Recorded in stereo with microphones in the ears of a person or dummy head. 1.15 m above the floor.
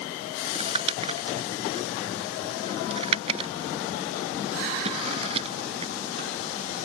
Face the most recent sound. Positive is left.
turn(degrees=-35)  # may be behind; listen again after turning